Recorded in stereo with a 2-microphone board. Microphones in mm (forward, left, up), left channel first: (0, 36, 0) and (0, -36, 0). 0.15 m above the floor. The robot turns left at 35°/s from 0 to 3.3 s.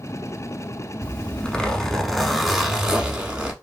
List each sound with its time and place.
1.0 s a zipper: 15° left (ahead or behind), 0.8 m; by 3.5 s 15° right (ahead or behind), 0.8 m